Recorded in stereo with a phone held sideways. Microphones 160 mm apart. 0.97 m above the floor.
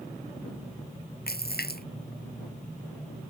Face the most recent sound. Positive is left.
turn(degrees=80)